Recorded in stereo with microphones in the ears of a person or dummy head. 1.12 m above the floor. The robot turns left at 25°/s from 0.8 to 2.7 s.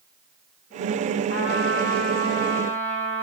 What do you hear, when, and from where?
1.3 s a trumpet: 80° left, 9 m; by 3.2 s 45° left, 9 m